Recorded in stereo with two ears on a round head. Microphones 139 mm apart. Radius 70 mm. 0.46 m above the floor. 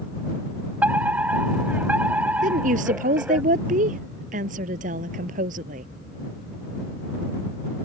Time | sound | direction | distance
0.8 | a fire alarm | 10° right (ahead or behind) | ?
2.4 | a woman speaking | 55° right (ahead or behind) | ?